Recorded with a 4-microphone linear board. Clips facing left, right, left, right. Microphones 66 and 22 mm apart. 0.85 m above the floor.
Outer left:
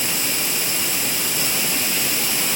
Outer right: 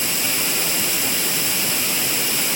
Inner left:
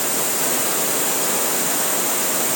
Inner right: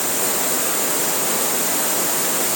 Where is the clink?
I don't hear a clink.